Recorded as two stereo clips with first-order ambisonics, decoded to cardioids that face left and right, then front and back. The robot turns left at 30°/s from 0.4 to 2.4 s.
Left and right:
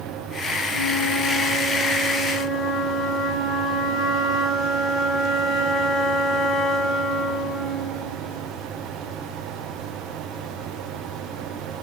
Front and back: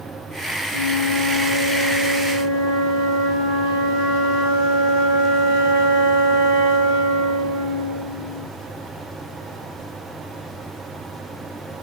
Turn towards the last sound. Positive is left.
turn(degrees=160)